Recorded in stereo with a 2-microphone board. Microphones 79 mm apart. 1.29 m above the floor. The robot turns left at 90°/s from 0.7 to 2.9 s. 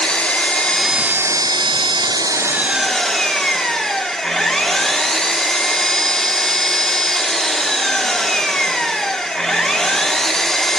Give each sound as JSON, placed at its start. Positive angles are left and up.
{"t": 0.0, "sound": "an engine running", "azimuth_deg": 15, "distance_m": 0.8}